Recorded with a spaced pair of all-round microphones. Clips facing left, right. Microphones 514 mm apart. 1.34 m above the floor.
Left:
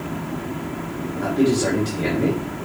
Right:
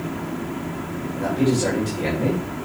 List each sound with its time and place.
1.1 s a man speaking: 80° left, 3 m